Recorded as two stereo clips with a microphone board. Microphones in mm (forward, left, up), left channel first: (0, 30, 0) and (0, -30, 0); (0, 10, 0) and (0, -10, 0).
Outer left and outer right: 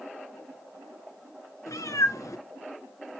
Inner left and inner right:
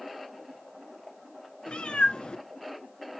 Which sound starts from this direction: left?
A cat meowing, at 1.7 s.